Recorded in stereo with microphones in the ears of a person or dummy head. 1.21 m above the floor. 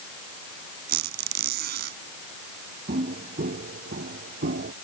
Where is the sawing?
I don't hear sawing.